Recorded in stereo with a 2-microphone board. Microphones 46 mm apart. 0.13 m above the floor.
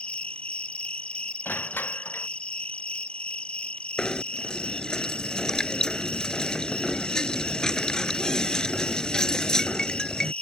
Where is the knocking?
15° left (ahead or behind).